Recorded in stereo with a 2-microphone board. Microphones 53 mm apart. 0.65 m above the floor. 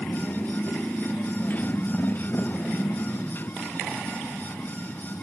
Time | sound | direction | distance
0.0 | a motorcycle | 30° left (ahead or behind) | ?